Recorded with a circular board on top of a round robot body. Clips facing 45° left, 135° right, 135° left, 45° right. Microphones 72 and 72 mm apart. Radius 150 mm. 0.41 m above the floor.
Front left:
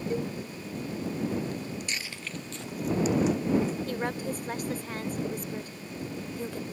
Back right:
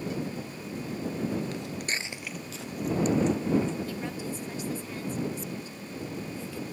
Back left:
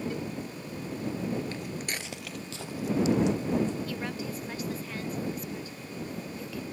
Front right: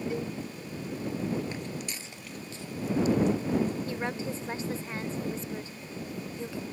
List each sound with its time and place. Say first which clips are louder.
0.1 s a cowbell: front left 3 dB, front right 2 dB; 20° left
1.5 s footsteps: back right 1 dB, back left 1 dB; 120° right; by 3.8 s 125° left
3.9 s a woman speaking: front left 3 dB, front right 2 dB; 15° left